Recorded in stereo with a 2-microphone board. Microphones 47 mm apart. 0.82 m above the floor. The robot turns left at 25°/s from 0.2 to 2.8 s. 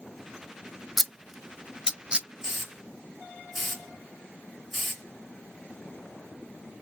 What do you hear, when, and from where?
1.0 s scissors: 5° left (ahead or behind), 0.6 m; by 2.3 s 25° right (ahead or behind), 0.6 m
2.4 s a hiss: 10° right (ahead or behind), 1.7 m; by 5.0 s centre (ahead or behind), 1.7 m